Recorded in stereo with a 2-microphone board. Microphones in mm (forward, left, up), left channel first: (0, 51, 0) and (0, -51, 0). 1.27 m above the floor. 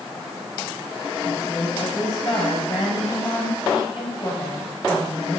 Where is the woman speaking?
50° left (ahead or behind), 9 m.